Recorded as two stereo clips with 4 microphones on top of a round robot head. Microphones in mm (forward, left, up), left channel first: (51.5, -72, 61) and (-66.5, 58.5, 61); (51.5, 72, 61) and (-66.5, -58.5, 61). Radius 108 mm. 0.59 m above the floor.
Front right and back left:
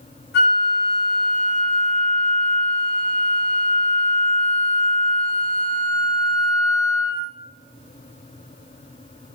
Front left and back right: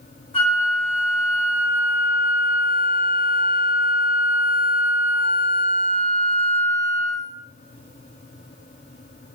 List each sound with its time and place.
0.3 s a flute: 15° right, 1.3 m